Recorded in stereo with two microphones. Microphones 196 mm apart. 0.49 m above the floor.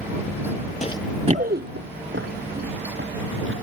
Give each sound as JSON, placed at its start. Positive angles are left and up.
{"t": 0.8, "sound": "running footsteps", "side_deg": 40}